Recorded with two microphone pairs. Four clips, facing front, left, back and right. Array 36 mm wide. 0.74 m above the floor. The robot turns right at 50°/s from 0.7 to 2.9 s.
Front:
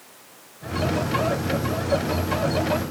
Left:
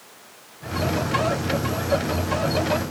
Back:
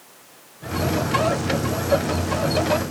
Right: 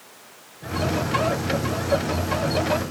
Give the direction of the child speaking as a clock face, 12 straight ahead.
I don't hear a child speaking.